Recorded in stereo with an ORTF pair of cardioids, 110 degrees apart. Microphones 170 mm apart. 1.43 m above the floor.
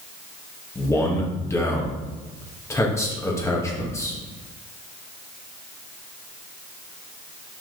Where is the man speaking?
15° left, 1.9 m.